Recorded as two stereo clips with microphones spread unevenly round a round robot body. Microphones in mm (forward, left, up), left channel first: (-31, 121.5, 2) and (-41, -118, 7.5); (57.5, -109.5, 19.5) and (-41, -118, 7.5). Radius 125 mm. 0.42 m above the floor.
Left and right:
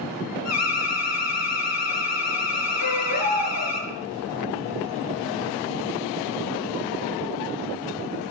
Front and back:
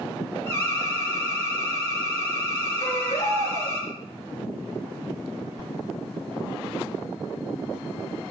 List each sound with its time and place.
0.5 s an alarm: 105° left, 5.5 m
2.8 s a baby crying: 85° left, 5 m